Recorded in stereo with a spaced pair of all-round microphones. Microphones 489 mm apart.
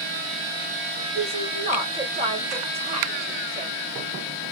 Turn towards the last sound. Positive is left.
turn(degrees=-15)  # may be behind; listen again after turning